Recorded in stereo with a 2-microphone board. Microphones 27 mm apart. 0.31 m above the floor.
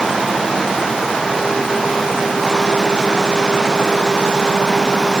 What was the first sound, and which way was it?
Only background noise.